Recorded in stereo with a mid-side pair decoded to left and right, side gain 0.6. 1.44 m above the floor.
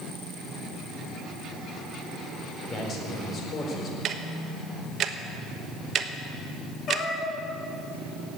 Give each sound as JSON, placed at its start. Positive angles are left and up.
{"t": 2.7, "sound": "a man speaking", "azimuth_deg": 40, "distance_m": 4.5}
{"t": 4.0, "sound": "ticking", "azimuth_deg": -45, "distance_m": 1.2}
{"t": 6.9, "sound": "a cat meowing", "azimuth_deg": 35, "distance_m": 3.0}